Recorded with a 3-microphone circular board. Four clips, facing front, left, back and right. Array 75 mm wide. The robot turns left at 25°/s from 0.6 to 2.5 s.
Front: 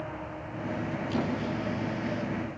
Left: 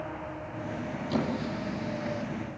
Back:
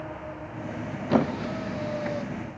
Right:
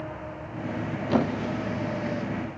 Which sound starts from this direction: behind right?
A squeak, at 1.1 s.